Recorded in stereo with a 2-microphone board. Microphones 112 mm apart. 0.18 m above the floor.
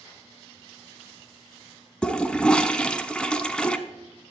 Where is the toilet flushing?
10° left (ahead or behind), 0.8 m.